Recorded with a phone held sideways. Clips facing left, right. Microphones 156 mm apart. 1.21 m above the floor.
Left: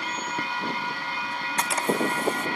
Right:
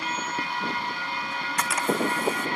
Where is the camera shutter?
30° left (ahead or behind), 1.1 m.